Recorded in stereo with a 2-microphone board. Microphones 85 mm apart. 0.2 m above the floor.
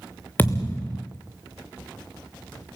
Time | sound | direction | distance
0.4 | a thud | 25° left (ahead or behind) | 2 m